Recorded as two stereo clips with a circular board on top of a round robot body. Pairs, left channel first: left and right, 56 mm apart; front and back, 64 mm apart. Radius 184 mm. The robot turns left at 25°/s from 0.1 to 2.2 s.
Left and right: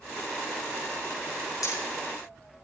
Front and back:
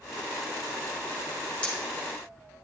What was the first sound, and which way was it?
Hammering, 75° left.